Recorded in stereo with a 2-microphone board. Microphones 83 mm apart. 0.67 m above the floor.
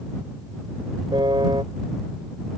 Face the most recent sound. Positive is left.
turn(degrees=-75)  # may be behind; listen again after turning